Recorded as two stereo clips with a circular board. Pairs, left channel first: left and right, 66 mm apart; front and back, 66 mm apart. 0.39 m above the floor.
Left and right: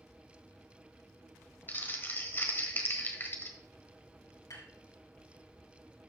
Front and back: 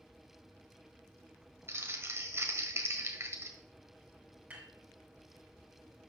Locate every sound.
1.7 s crumpling: 140° left, 1.4 m
4.5 s dishes clattering: 115° left, 5 m